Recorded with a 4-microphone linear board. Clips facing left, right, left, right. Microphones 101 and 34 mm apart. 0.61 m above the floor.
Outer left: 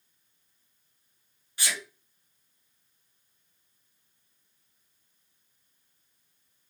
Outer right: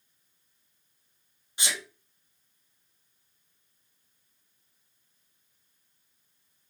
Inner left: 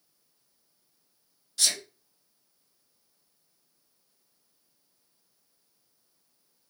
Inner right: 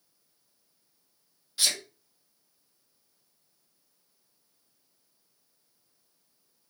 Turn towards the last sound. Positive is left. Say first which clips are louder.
# even, even
turn(degrees=-20)  # may be behind; listen again after turning